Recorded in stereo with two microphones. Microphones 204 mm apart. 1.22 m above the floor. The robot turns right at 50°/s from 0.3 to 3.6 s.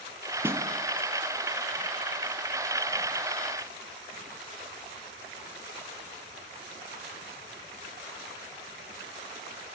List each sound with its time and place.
0.4 s a snare drum: 10° right (ahead or behind), 2 m; by 0.7 s 20° right (ahead or behind), 2 m